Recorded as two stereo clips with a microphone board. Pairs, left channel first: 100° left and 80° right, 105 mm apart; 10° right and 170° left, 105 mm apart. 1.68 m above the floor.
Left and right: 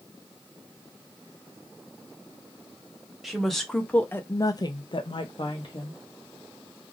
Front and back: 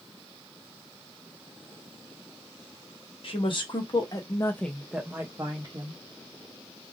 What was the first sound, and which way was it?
A woman speaking, 10° left.